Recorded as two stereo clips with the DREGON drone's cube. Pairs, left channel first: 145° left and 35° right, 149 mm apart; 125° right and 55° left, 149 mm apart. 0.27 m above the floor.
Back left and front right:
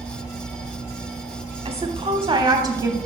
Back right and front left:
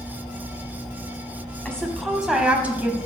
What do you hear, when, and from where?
1.6 s a woman speaking: 45° right, 1.3 m; by 3.0 s 5° left, 1.0 m